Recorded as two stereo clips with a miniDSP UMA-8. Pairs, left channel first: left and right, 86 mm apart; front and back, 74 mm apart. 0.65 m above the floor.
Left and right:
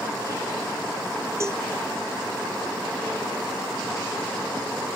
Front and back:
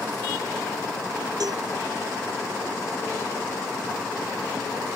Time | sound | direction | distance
1.4 | a cowbell | 150° right | ?